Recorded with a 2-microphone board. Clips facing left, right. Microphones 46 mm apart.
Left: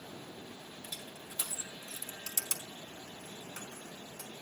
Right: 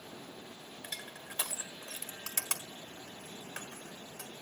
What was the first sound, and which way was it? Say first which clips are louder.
Crushing: right 4 dB; 60° right (ahead or behind).